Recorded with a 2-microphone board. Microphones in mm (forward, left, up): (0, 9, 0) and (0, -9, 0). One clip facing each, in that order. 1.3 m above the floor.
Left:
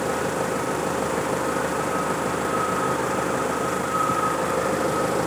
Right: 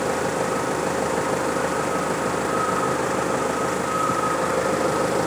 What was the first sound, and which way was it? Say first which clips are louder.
An engine running: right 1 dB; 5° right (ahead or behind).